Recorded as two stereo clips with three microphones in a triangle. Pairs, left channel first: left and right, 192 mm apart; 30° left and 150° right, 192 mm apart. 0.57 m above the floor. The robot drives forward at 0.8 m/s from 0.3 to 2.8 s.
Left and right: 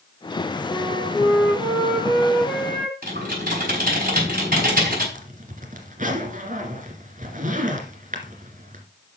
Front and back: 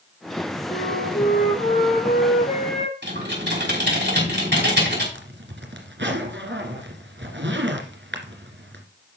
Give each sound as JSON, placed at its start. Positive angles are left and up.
{"t": 0.7, "sound": "a flute", "azimuth_deg": 10, "distance_m": 8.0}
{"t": 3.0, "sound": "typing on a keyboard", "azimuth_deg": -130, "distance_m": 4.5}
{"t": 5.1, "sound": "a zipper", "azimuth_deg": -135, "distance_m": 1.8}